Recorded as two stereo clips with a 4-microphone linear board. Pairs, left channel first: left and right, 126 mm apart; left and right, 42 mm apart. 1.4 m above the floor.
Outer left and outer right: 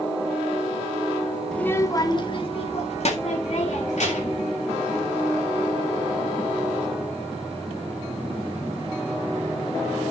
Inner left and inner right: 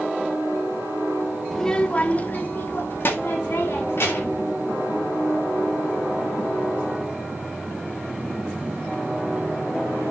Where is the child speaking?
5° left (ahead or behind), 0.9 m; by 4.4 s 70° left (ahead or behind), 3 m.